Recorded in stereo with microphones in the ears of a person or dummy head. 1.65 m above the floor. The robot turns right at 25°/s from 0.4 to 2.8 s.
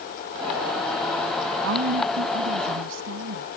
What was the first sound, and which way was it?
A woman speaking, 70° right (ahead or behind).